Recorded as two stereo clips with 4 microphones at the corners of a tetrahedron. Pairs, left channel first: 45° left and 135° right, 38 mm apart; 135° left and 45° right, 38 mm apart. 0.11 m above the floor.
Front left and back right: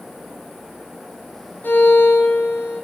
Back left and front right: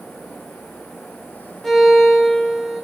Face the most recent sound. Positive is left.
turn(degrees=55)